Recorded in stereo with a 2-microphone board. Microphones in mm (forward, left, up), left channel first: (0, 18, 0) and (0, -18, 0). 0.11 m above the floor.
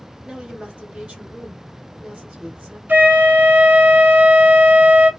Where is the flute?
65° right (ahead or behind), 0.8 m.